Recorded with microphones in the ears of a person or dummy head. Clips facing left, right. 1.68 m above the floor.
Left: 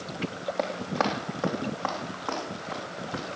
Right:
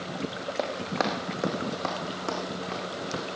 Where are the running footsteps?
10° right (ahead or behind), 3.5 m; by 3.2 s 35° right (ahead or behind), 6 m.